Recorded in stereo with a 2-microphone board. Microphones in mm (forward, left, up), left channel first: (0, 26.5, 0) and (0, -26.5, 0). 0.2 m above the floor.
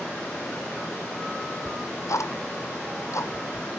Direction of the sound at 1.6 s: 70° left (ahead or behind).